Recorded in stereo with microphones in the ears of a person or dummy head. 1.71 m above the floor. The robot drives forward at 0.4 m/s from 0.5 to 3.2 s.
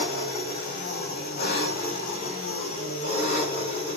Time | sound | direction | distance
0.0 | an engine running | 50° left (ahead or behind) | 5 m